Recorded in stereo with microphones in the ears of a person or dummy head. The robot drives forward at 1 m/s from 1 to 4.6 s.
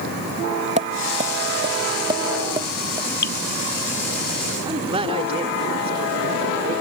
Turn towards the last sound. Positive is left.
turn(degrees=-30)  # may be behind; listen again after turning